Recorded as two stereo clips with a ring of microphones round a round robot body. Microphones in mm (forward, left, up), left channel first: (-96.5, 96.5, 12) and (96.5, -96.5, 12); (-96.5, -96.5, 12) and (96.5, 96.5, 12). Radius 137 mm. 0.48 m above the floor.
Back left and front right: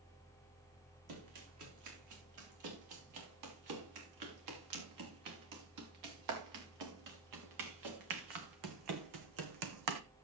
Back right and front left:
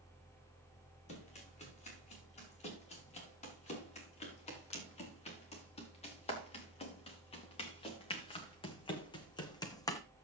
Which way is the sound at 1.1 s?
70° right.